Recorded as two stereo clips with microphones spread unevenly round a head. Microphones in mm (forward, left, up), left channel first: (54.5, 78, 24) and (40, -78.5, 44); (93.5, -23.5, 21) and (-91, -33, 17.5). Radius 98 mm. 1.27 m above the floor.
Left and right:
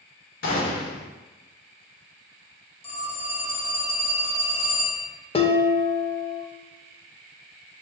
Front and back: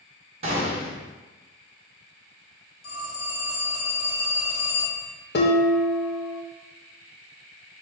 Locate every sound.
0.4 s a gunshot: 125° left, 1.1 m
2.8 s a phone ringing: 30° left, 1.4 m
5.3 s dishes clattering: 35° left, 0.7 m